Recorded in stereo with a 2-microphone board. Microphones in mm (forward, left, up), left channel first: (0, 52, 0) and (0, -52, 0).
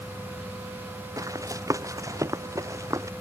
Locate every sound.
1.2 s running footsteps: 30° right (ahead or behind)